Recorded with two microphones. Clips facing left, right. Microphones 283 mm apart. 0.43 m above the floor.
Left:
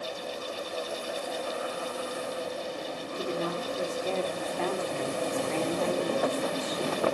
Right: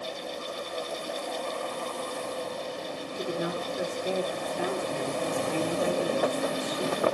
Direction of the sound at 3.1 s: 10° right (ahead or behind).